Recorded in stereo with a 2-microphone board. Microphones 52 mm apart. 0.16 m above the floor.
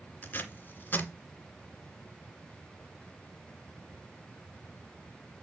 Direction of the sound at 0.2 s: 35° left (ahead or behind).